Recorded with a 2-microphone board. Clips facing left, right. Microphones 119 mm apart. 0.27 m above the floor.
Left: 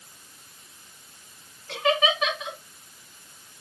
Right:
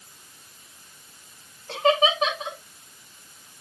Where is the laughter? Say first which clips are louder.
Right 3 dB; 35° right (ahead or behind), 2.5 m.